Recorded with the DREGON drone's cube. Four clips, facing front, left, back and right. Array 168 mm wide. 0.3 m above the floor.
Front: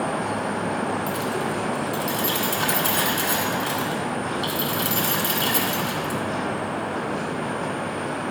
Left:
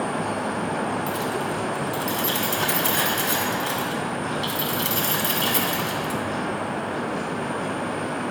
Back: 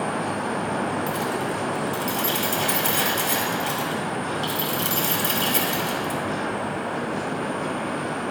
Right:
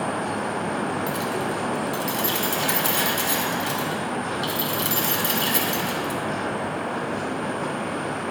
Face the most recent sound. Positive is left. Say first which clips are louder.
# even, even
turn(degrees=35)